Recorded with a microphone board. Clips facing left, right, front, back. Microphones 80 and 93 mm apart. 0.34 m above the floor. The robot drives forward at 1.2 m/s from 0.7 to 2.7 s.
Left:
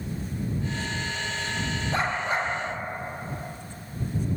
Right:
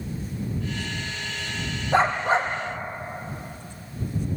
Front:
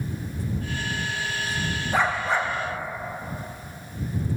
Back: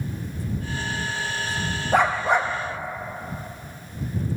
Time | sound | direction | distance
1.9 | a dog barking | 150° right | 4 m